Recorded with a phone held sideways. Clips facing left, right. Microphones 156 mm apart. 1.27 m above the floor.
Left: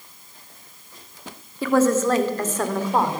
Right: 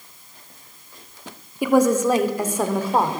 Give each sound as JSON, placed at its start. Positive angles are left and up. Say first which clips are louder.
{"t": 1.6, "sound": "a woman speaking", "louder": "right 1 dB", "side_deg": -15, "distance_m": 3.0}